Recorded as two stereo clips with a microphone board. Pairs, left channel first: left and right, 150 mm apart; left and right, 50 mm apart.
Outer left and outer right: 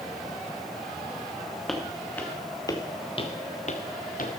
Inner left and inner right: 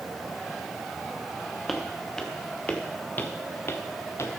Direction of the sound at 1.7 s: Centre (ahead or behind).